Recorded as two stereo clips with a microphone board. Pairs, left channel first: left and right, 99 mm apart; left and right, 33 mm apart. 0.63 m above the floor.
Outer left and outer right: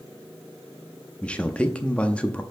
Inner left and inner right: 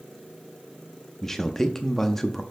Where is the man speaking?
15° left (ahead or behind), 0.5 m.